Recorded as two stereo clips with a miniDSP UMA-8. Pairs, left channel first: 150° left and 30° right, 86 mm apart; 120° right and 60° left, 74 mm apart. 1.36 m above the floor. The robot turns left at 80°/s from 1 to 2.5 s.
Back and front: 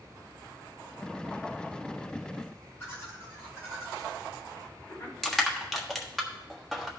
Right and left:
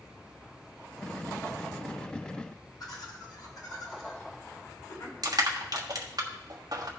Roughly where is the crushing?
Ahead left.